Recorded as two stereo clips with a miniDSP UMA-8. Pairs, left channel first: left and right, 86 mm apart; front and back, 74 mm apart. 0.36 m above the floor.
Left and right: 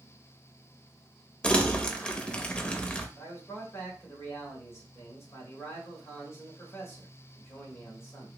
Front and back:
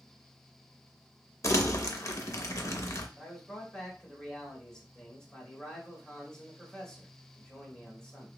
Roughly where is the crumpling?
Ahead.